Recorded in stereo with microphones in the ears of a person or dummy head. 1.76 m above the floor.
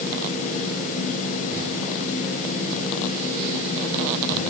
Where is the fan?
40° left (ahead or behind), 8.5 m.